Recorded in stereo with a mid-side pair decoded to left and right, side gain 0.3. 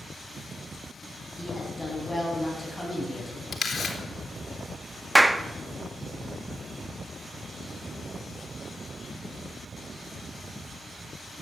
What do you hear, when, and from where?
1.4 s a woman speaking: 10° left, 9.5 m
3.5 s a camera shutter: 60° left, 3 m
5.2 s a clap: 15° right, 1.0 m